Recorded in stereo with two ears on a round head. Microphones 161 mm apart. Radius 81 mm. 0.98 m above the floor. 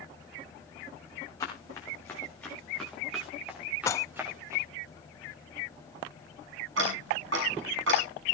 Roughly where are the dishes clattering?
Centre.